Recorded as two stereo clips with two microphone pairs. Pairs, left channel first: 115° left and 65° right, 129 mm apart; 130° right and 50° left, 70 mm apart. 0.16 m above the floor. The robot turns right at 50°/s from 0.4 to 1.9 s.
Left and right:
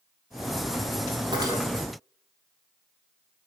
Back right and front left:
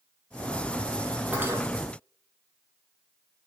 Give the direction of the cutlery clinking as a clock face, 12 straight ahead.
12 o'clock.